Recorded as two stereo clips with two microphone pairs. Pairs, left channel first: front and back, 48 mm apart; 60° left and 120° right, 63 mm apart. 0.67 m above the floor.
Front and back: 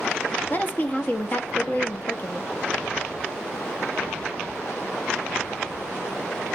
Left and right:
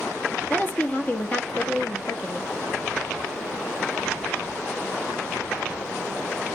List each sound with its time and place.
0.5 s a woman speaking: 10° left, 0.9 m